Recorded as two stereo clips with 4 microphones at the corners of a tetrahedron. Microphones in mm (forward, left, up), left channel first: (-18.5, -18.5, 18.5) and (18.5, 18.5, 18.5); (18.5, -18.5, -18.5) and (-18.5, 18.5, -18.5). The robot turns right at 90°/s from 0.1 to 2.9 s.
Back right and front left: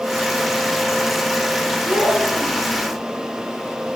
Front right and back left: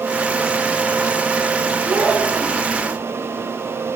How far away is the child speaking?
About 3.5 m.